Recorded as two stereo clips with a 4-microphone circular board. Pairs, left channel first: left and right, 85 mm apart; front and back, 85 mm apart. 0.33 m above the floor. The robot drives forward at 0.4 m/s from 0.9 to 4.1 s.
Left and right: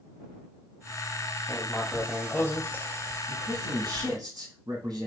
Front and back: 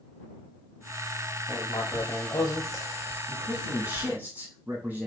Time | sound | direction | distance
1.5 | writing | 20° left | 1.2 m
3.3 | a man speaking | 115° right | 2.5 m